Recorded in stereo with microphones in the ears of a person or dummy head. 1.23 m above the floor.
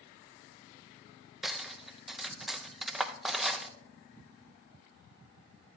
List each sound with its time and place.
1.4 s cutlery clinking: 5° right (ahead or behind), 0.5 m